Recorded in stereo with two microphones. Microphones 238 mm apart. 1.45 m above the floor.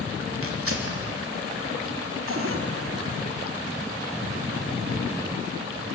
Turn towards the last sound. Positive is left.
turn(degrees=-60)  # may be behind; listen again after turning